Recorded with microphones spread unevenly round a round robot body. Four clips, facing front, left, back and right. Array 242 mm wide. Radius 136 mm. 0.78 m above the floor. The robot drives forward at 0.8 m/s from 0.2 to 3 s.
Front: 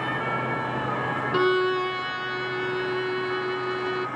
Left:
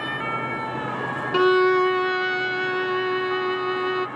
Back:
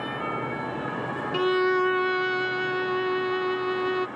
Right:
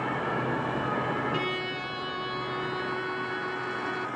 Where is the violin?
90° left; by 4.1 s 165° left.